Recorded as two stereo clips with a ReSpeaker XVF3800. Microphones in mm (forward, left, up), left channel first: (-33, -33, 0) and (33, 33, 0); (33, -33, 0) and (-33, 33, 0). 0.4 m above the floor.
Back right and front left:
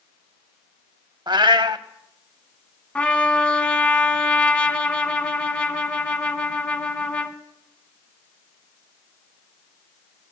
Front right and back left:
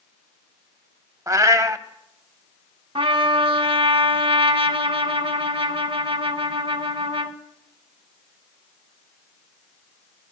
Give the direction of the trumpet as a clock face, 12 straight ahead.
7 o'clock.